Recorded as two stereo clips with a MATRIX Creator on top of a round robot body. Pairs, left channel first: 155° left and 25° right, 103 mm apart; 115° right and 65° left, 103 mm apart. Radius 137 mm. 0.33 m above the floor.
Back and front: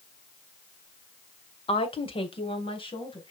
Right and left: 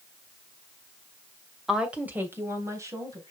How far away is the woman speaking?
About 1.8 m.